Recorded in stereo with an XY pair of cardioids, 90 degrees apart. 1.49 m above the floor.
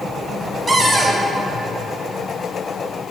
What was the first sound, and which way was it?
A cupboard door, 20° right.